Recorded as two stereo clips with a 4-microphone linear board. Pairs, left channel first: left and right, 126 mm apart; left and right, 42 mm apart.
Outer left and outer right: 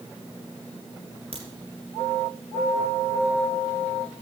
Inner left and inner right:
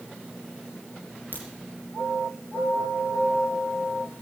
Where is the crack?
50° right (ahead or behind), 3 m.